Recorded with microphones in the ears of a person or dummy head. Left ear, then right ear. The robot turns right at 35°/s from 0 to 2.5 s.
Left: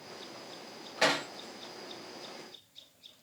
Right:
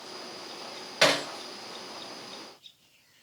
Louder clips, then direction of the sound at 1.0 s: Right 5 dB; 45° right (ahead or behind).